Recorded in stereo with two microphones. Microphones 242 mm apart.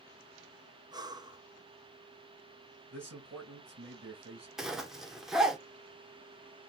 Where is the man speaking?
80° right, 2.5 m.